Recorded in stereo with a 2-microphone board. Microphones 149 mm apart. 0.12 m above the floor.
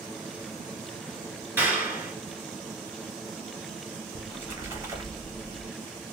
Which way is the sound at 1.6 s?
15° right (ahead or behind).